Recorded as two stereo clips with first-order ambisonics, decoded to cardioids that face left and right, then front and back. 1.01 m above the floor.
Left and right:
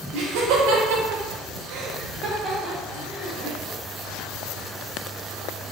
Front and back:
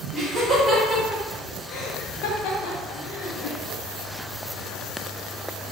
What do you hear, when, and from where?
0.1 s laughter: 105° right, 1.1 m; by 3.6 s 15° left, 1.0 m